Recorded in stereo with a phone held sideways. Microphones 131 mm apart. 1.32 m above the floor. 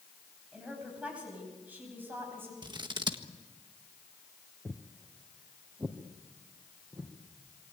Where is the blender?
I don't hear a blender.